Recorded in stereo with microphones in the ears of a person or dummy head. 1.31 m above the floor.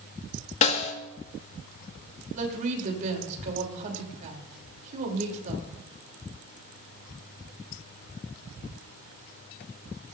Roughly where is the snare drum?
Left.